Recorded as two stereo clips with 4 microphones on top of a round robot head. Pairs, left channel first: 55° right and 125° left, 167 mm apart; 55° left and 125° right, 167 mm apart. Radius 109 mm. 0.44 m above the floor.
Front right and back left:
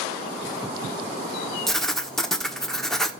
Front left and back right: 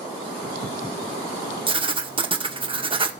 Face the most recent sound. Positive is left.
turn(degrees=-140)